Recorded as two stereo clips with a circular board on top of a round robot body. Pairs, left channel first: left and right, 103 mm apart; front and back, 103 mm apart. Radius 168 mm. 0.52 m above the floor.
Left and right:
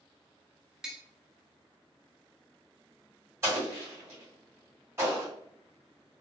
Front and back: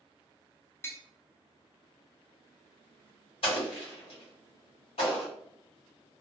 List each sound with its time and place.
0.8 s tapping: 15° right, 0.6 m
3.4 s an explosion: 25° right, 1.6 m